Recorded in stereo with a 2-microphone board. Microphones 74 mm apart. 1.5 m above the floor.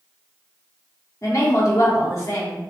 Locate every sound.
1.2 s a woman speaking: 45° left (ahead or behind), 1.4 m